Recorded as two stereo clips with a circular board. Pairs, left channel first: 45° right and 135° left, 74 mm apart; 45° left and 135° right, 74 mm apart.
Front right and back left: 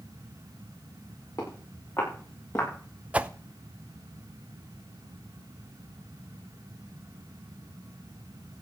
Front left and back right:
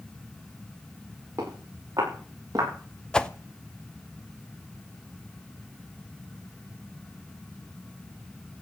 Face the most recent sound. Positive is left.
turn(degrees=105)